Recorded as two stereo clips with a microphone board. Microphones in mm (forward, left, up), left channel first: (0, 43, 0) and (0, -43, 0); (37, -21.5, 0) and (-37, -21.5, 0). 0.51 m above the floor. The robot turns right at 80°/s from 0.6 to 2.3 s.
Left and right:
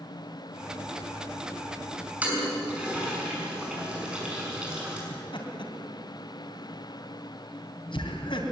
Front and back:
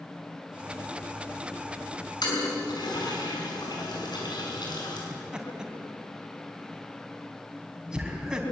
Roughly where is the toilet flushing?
Ahead.